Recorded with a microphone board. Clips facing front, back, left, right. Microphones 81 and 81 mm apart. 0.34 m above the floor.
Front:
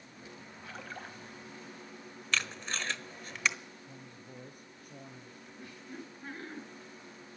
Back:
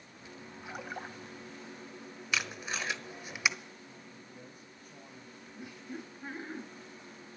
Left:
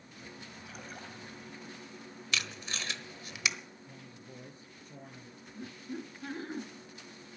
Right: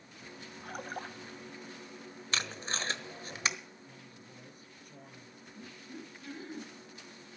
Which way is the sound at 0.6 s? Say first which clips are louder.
Back 3 dB, right 8 dB; 110° right.